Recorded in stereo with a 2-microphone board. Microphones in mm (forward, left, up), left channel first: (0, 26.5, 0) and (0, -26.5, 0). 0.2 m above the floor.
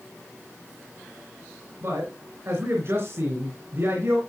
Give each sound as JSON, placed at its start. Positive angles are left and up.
{"t": 1.8, "sound": "a man speaking", "side_deg": -50, "distance_m": 3.0}